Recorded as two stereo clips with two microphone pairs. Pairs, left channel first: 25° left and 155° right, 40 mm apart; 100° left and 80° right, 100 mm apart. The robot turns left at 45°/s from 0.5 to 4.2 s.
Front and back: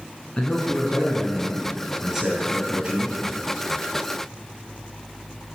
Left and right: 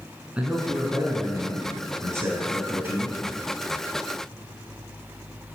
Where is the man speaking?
10° right, 1.3 m; by 3.2 s 130° right, 1.3 m.